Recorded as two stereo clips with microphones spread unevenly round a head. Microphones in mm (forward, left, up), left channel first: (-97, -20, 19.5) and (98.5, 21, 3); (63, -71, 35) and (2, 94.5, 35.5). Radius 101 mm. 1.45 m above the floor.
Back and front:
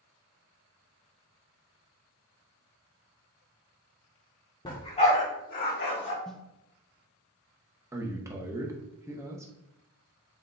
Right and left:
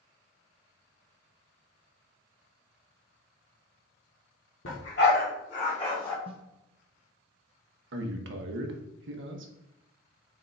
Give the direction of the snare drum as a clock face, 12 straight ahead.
8 o'clock.